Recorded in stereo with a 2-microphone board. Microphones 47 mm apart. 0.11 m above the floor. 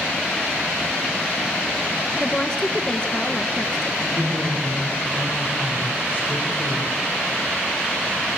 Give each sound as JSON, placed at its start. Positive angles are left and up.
{"t": 2.2, "sound": "a woman speaking", "side_deg": 15, "distance_m": 1.4}
{"t": 4.0, "sound": "a woman speaking", "side_deg": -30, "distance_m": 9.0}